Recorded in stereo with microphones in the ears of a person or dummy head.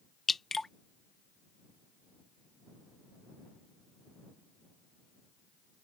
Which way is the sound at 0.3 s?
Centre (ahead or behind).